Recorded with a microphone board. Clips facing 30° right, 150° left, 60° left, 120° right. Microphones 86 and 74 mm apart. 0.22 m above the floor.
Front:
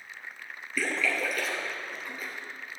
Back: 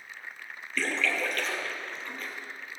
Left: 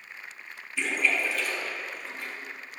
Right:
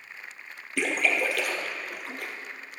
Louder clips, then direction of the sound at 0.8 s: Even, right 2 dB; 110° right.